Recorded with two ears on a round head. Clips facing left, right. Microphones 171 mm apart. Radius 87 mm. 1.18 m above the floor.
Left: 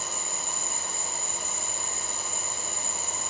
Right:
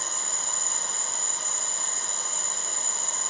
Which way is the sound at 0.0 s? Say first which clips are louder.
Left 1 dB; 60° right (ahead or behind).